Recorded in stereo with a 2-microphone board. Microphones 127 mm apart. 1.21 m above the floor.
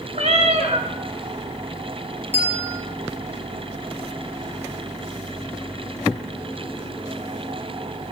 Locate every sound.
0.1 s a cat meowing: 55° right (ahead or behind), 1.4 m
2.3 s a bell: 65° right (ahead or behind), 2 m